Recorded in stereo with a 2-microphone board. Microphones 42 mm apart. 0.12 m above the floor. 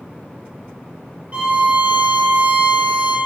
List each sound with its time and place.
1.3 s a violin: 35° right (ahead or behind), 2 m